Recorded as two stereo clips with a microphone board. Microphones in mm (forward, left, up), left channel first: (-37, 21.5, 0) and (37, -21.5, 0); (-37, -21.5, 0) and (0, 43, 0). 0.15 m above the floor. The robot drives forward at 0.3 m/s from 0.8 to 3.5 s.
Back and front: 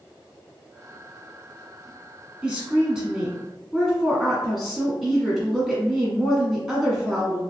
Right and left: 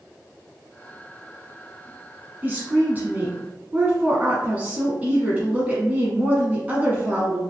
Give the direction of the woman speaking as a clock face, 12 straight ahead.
11 o'clock.